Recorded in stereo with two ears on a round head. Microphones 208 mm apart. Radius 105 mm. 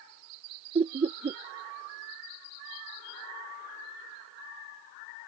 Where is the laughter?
25° right (ahead or behind).